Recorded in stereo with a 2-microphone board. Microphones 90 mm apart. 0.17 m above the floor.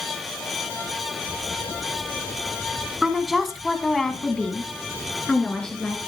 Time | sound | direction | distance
3.0 | a woman speaking | 5° right (ahead or behind) | 1.6 m